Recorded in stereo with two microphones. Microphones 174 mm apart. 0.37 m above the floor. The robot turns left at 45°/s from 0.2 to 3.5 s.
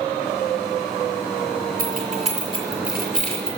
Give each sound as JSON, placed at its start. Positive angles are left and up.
{"t": 1.8, "sound": "keys jangling", "side_deg": -55, "distance_m": 5.5}